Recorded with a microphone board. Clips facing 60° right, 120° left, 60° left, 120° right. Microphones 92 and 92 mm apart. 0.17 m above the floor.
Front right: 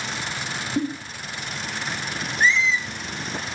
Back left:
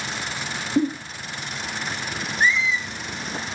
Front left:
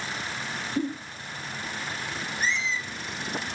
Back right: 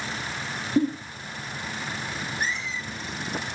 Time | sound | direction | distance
0.8 | a giggle | 165° right | 4.5 m
2.4 | a squeak | 160° right | 2 m